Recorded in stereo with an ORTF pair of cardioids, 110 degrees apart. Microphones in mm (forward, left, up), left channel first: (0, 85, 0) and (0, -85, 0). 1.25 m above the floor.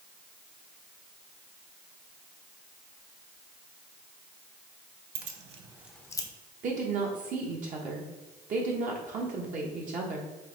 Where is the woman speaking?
50° right, 1.0 m.